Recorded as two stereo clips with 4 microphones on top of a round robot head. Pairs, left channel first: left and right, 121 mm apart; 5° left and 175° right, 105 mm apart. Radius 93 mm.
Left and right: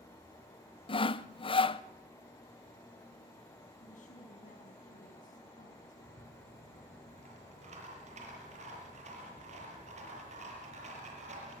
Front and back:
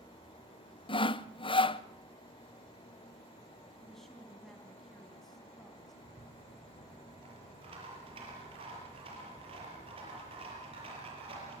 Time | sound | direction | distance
0.9 | sawing | 45° left | 0.8 m
3.8 | a woman speaking | 90° left | 4 m
6.0 | a rattle | 130° right | 7 m